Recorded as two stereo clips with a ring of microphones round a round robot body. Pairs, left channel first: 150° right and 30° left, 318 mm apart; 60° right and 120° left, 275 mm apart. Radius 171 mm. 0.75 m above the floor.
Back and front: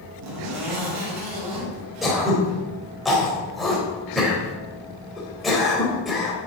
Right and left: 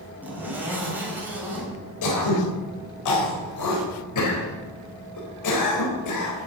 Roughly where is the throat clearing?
Ahead right.